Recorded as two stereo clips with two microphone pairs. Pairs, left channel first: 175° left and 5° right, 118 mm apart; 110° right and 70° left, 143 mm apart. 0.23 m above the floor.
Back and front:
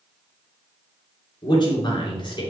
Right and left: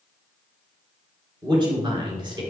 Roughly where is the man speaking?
Behind left.